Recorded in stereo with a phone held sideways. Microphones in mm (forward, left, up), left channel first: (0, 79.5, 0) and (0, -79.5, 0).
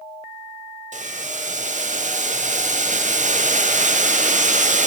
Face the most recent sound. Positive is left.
turn(degrees=-50)  # may be behind; listen again after turning